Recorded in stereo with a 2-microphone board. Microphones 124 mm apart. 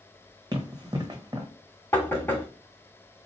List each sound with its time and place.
0.5 s running footsteps: 30° right (ahead or behind), 1.0 m
1.9 s knocking: 20° left (ahead or behind), 1.1 m